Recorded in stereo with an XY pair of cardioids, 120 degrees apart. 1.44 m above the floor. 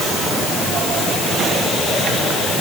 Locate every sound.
Only background noise.